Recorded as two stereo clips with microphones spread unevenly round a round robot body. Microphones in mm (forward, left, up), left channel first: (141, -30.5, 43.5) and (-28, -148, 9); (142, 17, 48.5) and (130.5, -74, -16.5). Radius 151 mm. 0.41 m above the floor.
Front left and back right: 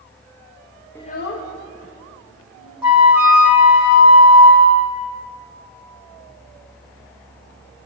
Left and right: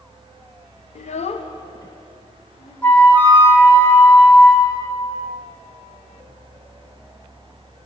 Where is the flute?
90° right, 1.4 m.